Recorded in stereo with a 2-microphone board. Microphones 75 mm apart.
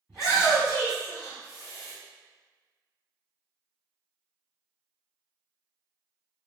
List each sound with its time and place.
0.1 s a shout: centre (ahead or behind), 1.7 m; by 1.9 s 35° right (ahead or behind), 1.7 m